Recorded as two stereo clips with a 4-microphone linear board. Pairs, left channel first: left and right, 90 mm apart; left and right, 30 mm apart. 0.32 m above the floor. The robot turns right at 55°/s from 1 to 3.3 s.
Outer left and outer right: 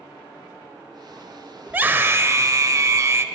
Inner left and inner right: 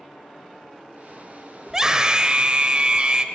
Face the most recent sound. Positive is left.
turn(degrees=-60)